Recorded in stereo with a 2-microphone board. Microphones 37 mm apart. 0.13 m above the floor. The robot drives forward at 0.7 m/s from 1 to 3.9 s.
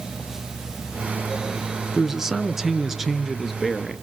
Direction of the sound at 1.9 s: 15° right (ahead or behind).